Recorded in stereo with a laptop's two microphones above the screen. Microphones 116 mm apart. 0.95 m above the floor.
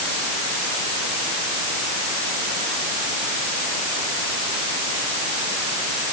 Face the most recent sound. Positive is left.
No sound to turn to.